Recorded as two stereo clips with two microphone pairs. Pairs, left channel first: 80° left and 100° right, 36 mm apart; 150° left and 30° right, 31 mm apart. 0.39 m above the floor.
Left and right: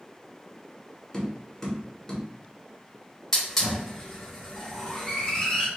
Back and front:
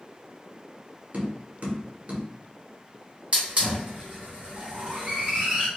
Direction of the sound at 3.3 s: 5° left.